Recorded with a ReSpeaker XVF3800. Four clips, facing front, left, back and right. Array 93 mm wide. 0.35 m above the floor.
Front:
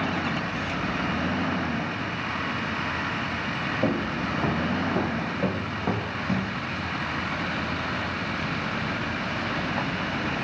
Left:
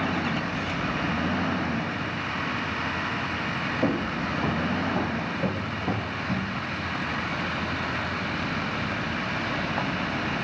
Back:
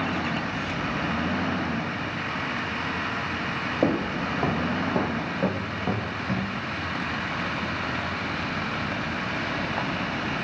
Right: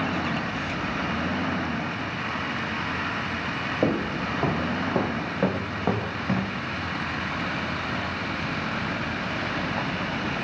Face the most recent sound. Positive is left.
turn(degrees=-70)